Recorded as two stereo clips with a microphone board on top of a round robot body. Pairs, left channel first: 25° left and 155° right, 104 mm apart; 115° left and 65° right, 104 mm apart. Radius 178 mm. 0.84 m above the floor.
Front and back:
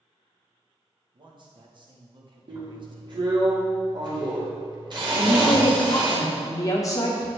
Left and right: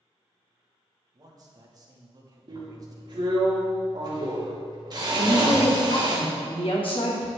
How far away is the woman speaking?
About 2.5 m.